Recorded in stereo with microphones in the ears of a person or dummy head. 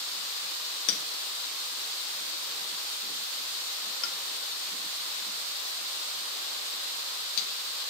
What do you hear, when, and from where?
0.9 s a clink: 75° left (ahead or behind), 1.1 m